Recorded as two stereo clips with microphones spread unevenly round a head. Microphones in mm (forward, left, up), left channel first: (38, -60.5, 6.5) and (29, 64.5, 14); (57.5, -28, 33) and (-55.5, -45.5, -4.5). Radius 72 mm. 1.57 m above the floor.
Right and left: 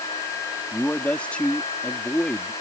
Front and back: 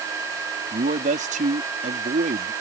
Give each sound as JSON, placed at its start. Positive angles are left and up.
{"t": 0.7, "sound": "a man speaking", "azimuth_deg": -170}